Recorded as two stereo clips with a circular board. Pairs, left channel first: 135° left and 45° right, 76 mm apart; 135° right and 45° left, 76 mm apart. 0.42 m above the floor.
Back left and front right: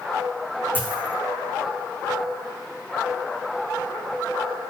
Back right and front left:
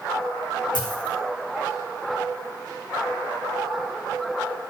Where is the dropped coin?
155° right, 3.5 m.